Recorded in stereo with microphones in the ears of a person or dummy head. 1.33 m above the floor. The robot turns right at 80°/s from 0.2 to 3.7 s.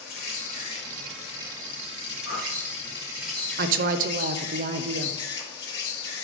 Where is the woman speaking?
50° right (ahead or behind), 0.5 m.